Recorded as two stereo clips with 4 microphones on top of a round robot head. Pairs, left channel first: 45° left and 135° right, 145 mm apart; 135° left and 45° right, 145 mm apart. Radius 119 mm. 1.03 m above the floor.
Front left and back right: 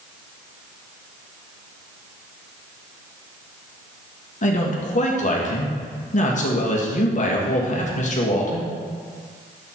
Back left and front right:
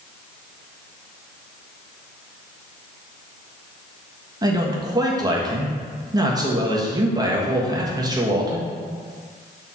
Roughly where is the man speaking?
Ahead.